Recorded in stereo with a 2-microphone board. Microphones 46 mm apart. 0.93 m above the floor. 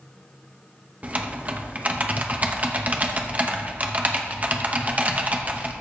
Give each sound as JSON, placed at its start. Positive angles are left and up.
{"t": 1.0, "sound": "typing on a keyboard", "side_deg": -35, "distance_m": 0.8}